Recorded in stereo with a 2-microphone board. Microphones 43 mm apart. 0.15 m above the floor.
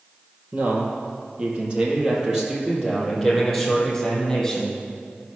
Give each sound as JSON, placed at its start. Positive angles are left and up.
{"t": 0.5, "sound": "a man speaking", "side_deg": -40, "distance_m": 3.0}